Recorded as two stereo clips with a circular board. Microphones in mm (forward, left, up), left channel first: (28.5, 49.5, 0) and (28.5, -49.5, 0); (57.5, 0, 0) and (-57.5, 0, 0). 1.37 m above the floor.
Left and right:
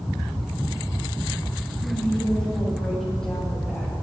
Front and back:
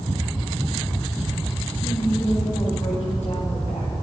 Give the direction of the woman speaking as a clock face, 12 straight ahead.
12 o'clock.